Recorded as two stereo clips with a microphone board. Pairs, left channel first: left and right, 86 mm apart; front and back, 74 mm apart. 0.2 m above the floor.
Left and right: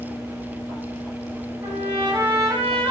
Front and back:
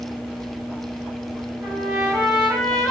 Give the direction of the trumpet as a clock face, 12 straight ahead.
4 o'clock.